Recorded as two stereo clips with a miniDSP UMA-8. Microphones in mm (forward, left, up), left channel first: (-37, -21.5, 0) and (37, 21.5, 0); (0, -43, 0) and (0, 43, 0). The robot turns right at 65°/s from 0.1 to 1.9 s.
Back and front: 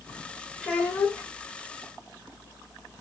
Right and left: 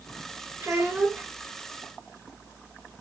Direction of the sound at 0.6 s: 140° left.